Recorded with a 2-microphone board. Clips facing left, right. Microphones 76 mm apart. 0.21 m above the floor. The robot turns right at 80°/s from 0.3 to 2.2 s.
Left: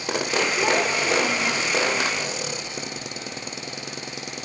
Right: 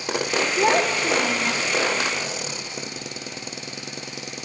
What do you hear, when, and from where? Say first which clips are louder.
0.6 s a child speaking: right 5 dB; 130° right, 1.3 m; by 1.6 s 45° right, 1.3 m